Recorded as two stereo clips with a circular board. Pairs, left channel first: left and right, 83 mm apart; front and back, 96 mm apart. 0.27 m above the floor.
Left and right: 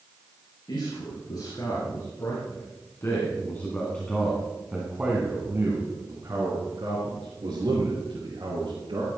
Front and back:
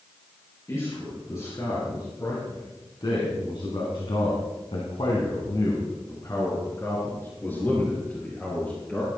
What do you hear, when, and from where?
0.7 s a man speaking: 55° left, 5.5 m; by 9.1 s 80° right, 6 m